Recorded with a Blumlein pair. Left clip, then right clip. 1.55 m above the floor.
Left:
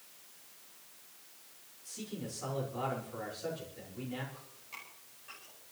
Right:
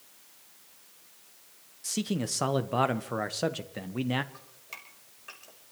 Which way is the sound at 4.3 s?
65° right.